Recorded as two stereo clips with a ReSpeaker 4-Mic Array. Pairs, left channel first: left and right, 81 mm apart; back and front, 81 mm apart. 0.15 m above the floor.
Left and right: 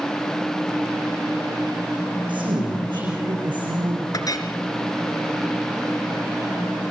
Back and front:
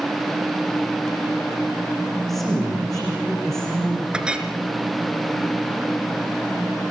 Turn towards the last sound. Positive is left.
turn(degrees=75)